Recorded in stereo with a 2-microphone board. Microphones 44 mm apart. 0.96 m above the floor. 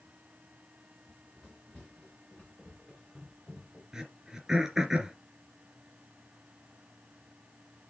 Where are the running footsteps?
15° left (ahead or behind), 6 m; by 3.8 s 5° left (ahead or behind), 4.5 m.